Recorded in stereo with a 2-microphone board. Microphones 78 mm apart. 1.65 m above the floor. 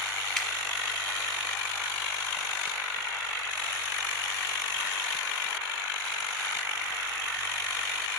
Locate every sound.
0.4 s dripping: 10° left (ahead or behind), 0.7 m